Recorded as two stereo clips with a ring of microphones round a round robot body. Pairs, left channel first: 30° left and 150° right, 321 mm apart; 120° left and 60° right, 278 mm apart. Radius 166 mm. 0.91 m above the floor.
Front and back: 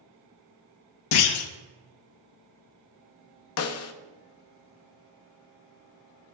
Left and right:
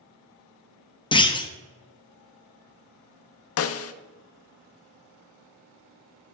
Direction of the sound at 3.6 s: 80° left.